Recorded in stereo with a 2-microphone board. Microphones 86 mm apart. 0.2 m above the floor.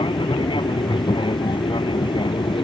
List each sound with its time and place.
0.0 s an aircraft: 75° left (ahead or behind)